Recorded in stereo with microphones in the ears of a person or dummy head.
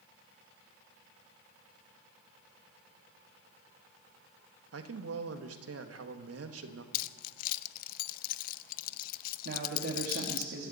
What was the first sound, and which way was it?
A man speaking, 80° right.